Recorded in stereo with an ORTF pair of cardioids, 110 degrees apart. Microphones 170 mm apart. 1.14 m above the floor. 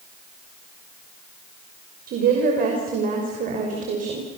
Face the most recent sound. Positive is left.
turn(degrees=-50)